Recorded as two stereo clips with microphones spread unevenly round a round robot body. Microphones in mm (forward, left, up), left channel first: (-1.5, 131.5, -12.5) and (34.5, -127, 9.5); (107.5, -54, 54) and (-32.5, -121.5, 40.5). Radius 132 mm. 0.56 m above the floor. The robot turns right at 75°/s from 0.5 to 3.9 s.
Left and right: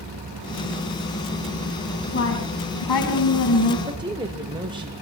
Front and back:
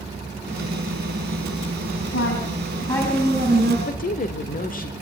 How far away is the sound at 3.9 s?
About 1.9 m.